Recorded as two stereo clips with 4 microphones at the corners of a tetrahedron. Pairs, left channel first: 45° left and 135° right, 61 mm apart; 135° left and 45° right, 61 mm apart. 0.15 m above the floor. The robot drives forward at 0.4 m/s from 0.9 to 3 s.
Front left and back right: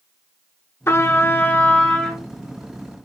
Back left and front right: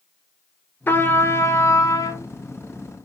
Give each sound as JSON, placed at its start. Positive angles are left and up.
{"t": 0.9, "sound": "a trumpet", "azimuth_deg": 85, "distance_m": 0.7}